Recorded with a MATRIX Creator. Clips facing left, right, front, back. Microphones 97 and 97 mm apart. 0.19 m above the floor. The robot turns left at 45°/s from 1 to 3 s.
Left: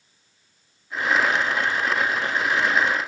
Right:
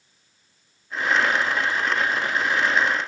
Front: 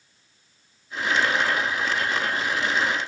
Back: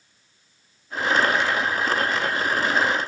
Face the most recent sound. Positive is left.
No sound to turn to.